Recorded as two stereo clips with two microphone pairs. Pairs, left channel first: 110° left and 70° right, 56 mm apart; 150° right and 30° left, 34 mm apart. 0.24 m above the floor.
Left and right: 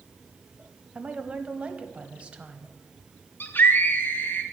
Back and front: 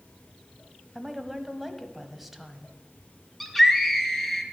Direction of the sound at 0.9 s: 40° right.